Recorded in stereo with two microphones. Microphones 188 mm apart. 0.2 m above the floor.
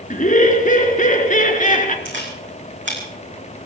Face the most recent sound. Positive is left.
turn(degrees=-75)  # may be behind; listen again after turning